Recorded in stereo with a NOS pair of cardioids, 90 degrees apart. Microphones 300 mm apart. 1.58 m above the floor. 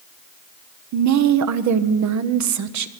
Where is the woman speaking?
65° right, 1.0 m.